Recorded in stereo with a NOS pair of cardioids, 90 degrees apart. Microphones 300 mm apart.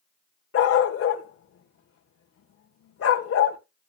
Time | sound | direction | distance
0.5 | a dog barking | 50° left | 2.0 m